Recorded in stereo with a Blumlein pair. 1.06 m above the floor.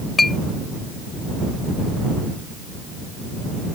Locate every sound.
0.2 s a clink: 10° left